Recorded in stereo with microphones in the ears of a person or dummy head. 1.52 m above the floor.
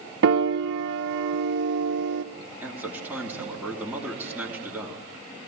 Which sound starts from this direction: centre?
A man speaking, at 2.6 s.